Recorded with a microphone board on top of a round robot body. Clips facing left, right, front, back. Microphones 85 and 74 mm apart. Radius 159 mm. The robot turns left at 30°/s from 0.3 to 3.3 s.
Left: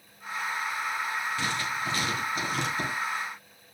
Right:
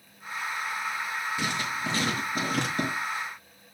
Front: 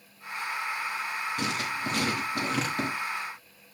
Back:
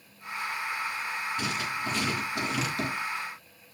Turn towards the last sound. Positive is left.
turn(degrees=-70)